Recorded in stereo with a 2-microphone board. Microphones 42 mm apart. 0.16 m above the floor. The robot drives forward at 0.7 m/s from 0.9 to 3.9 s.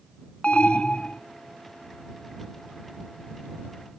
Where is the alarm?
25° left (ahead or behind), 0.8 m.